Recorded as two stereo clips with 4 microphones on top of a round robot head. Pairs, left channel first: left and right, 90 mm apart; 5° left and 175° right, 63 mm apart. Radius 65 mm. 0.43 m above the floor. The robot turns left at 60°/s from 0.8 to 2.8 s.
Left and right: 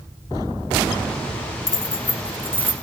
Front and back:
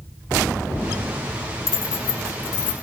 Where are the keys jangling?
45° left, 5 m; by 2.7 s 20° right, 5 m.